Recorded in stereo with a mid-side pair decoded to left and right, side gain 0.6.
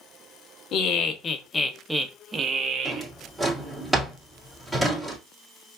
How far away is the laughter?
About 1.2 m.